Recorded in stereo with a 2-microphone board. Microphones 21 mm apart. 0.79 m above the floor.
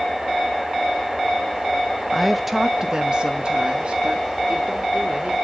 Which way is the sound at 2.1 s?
5° left (ahead or behind).